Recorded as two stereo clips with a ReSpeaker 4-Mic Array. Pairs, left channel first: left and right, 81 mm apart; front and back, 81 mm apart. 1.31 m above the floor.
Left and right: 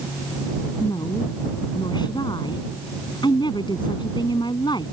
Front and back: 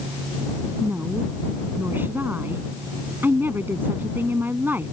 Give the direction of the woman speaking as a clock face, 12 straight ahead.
8 o'clock.